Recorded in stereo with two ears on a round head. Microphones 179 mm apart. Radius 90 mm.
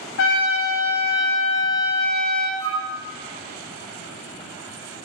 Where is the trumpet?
65° left (ahead or behind), 0.5 m.